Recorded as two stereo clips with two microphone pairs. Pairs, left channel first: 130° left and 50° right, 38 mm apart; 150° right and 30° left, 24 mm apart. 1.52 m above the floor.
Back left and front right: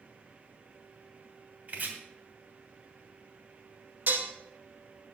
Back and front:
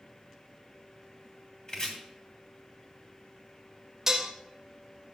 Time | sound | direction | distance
1.7 | chopping | 95° right | 2.5 m
4.1 | dishes clattering | 35° right | 1.3 m